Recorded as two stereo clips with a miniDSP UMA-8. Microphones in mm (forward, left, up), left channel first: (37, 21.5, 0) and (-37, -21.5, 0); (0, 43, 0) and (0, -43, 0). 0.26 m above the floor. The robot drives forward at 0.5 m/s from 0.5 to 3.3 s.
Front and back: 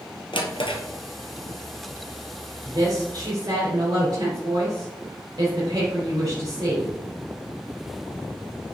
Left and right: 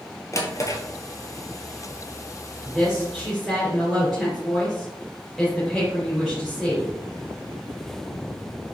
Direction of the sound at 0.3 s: 40° left.